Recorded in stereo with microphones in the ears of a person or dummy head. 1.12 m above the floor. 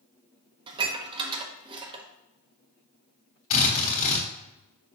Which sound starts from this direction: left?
A drill, at 3.5 s.